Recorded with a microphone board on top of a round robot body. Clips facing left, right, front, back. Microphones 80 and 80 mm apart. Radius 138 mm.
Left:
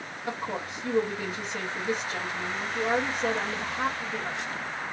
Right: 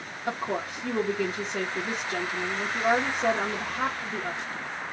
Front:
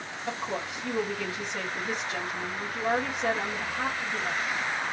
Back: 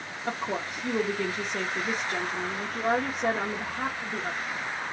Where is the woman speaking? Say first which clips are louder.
Right 3 dB, back 2 dB; 135° right, 2.5 m.